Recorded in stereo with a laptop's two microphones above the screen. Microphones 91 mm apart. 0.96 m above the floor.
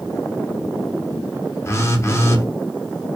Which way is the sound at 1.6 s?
30° left (ahead or behind).